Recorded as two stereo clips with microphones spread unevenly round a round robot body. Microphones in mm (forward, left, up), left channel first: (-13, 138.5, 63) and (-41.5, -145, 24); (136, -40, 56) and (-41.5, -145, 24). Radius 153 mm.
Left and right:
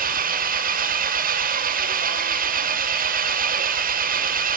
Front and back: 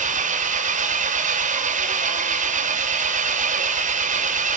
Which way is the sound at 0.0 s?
135° right.